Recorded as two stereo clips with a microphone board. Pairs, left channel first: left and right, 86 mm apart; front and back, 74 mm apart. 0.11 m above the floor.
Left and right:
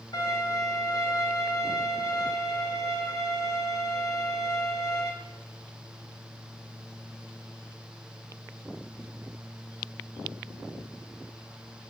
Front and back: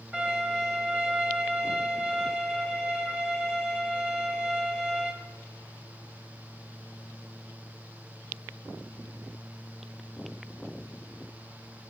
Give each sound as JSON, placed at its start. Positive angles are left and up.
{"t": 0.1, "sound": "a violin", "azimuth_deg": 115, "distance_m": 3.5}